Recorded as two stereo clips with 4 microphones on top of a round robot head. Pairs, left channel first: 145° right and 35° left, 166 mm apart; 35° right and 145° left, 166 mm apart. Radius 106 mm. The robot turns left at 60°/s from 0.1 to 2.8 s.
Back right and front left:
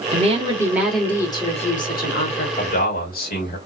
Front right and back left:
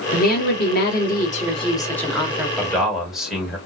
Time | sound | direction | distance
0.1 | a woman speaking | 5° right | 1.8 m
2.6 | a man speaking | 115° right | 2 m